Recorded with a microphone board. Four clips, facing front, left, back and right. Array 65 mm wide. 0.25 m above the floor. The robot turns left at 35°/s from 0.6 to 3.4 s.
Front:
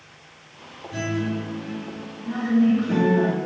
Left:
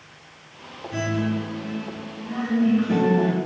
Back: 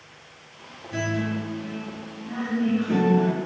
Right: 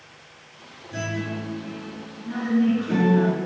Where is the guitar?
130° left, 1.8 m; by 3.2 s 50° left, 1.8 m.